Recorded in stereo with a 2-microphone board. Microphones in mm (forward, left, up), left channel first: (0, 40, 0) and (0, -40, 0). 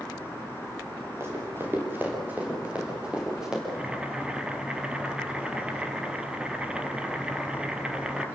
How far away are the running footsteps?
About 6.5 m.